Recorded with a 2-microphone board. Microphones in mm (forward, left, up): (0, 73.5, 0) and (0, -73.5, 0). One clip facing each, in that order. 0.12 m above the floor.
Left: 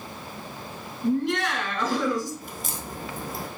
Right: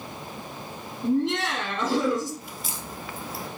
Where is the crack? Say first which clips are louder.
Left 2 dB; 55° left (ahead or behind), 1.0 m.